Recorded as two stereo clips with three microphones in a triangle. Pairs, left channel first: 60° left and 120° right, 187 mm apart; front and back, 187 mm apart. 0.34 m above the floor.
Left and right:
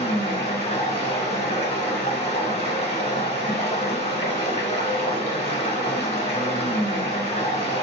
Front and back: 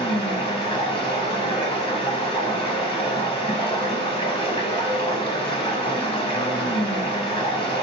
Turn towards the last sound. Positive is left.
turn(degrees=35)